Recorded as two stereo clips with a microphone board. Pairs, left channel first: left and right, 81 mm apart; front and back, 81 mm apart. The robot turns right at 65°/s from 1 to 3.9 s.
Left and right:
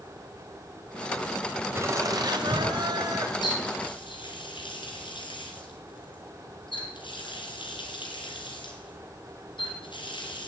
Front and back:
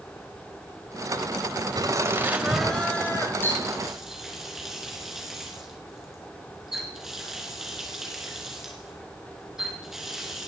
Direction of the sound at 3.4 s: 65° left.